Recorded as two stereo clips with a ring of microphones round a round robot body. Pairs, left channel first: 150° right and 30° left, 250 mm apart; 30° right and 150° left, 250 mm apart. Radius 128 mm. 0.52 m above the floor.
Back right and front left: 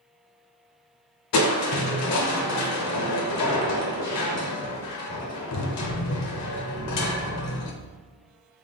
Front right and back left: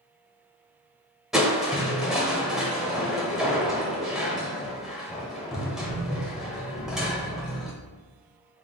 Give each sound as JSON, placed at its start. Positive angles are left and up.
{"t": 1.3, "sound": "crushing", "azimuth_deg": -120, "distance_m": 0.6}